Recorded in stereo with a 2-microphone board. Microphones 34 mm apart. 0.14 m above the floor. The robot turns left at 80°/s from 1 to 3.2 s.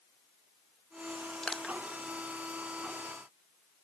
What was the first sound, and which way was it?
Crushing, 25° left (ahead or behind).